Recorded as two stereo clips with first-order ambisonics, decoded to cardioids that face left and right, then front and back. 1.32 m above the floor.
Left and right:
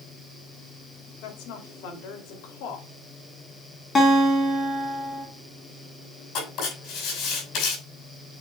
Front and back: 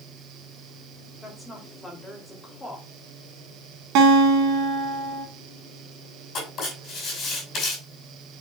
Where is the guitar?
160° left, 2.5 m.